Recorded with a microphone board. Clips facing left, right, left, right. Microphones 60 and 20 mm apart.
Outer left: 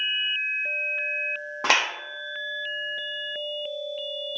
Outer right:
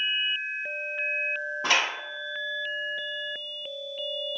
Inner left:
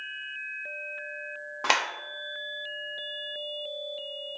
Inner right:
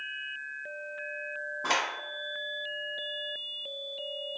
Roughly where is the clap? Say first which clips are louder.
Outer left 3 dB, inner left 4 dB; left.